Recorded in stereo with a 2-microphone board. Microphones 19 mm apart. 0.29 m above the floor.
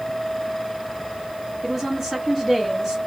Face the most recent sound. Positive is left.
turn(degrees=0)  # may be behind; listen again after turning